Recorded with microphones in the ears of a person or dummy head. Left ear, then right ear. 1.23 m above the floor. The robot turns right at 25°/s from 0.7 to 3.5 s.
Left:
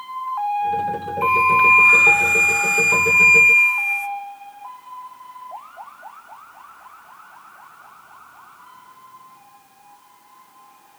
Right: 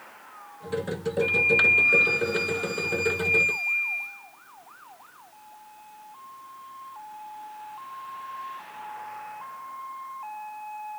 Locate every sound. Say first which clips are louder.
1.2 s a flute: left 6 dB; 70° left, 1.4 m; by 4.1 s 125° left, 1.4 m